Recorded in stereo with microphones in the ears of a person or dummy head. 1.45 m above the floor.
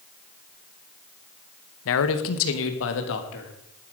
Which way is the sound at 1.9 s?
70° left (ahead or behind).